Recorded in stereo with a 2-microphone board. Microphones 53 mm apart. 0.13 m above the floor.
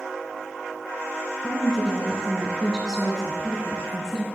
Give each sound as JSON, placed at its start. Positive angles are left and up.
{"t": 1.4, "sound": "a woman speaking", "side_deg": -15, "distance_m": 1.0}